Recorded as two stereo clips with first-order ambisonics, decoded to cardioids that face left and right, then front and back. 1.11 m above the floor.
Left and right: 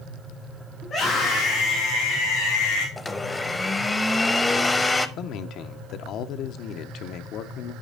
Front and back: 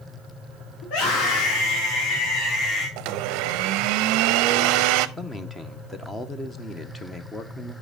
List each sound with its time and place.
0.8 s a scream: 25° left, 2.5 m; by 2.9 s 80° left, 2 m
3.0 s a blender: 170° left, 0.5 m
5.2 s a man speaking: 75° left, 0.6 m